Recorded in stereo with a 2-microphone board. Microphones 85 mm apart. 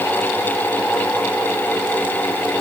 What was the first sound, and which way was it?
Only background noise.